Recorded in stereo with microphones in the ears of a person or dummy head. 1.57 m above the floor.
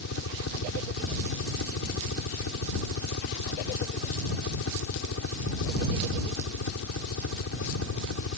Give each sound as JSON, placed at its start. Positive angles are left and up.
{"t": 0.0, "sound": "a helicopter", "side_deg": 70}